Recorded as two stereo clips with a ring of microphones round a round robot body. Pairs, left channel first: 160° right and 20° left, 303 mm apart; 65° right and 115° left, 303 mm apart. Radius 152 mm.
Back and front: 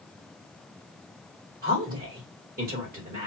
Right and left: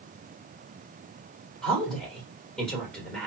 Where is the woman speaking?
20° left, 1.5 m.